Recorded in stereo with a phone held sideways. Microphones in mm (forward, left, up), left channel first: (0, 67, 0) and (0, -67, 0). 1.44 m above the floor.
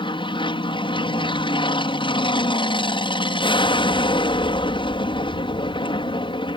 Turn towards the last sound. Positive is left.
turn(degrees=40)  # may be behind; listen again after turning